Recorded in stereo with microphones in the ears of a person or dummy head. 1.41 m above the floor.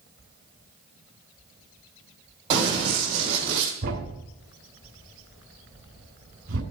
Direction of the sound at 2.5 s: 30° right (ahead or behind).